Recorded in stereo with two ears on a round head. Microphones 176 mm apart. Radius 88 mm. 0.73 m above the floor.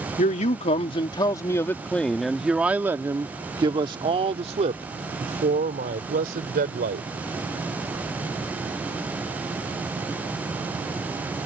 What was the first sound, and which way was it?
A man speaking, 40° left (ahead or behind).